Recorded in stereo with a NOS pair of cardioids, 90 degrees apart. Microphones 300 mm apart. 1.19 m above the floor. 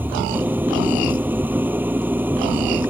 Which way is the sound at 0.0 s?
5° right.